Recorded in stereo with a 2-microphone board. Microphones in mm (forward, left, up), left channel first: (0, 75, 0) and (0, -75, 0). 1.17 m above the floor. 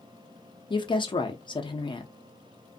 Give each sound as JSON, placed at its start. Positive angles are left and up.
{"t": 0.7, "sound": "a woman speaking", "side_deg": 35, "distance_m": 0.6}